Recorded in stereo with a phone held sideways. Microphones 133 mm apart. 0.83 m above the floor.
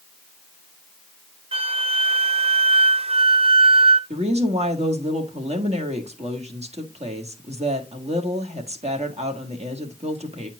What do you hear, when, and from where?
1.5 s a flute: 45° right (ahead or behind), 0.6 m
4.1 s a woman speaking: 55° right (ahead or behind), 1.6 m